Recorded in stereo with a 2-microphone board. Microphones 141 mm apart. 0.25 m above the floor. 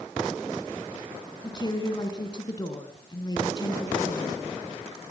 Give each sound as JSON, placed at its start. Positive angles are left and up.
{"t": 1.4, "sound": "a woman speaking", "side_deg": 30, "distance_m": 3.5}